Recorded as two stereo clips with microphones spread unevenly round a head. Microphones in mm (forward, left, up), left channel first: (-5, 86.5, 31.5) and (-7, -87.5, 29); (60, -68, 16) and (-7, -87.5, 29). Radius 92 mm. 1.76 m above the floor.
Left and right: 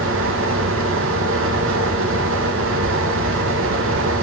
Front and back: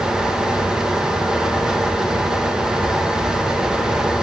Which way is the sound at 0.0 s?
85° right.